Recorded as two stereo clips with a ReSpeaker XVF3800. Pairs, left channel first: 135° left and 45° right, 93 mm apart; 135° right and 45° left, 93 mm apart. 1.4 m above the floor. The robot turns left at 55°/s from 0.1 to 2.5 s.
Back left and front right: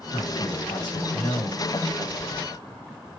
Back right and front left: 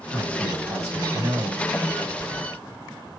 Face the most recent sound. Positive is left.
turn(degrees=5)